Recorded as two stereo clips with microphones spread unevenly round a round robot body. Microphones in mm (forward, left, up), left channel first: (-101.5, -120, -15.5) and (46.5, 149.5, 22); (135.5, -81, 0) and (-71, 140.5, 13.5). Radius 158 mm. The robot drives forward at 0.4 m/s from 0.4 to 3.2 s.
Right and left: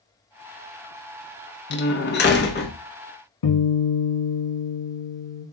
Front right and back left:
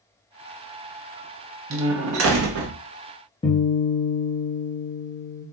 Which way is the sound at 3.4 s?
120° right.